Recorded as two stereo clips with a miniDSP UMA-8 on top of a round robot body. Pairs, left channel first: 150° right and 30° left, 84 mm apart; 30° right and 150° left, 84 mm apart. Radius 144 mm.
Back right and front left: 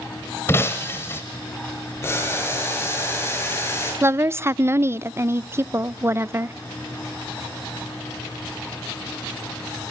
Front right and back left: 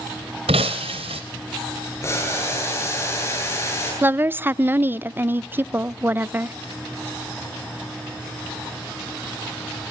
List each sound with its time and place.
0.5 s breaking glass: 150° left, 0.7 m
2.0 s boiling: 90° right, 9 m
4.0 s a woman speaking: 85° left, 0.6 m